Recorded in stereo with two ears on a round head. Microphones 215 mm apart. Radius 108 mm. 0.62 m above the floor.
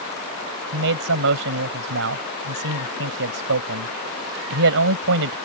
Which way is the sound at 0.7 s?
60° right (ahead or behind).